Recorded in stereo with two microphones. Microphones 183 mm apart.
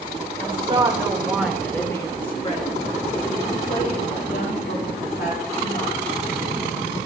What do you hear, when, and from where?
0.4 s a woman speaking: 30° right (ahead or behind), 1.3 m; by 6.1 s 65° left (ahead or behind), 3 m